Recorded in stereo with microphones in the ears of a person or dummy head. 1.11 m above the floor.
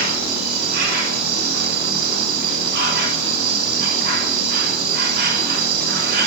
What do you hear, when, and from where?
0.0 s an insect: 50° right (ahead or behind), 7.5 m